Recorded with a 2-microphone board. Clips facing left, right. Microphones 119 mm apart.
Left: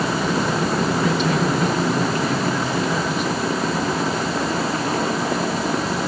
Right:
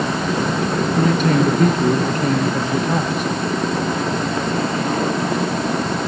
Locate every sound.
1.0 s a man speaking: 50° right (ahead or behind), 2.5 m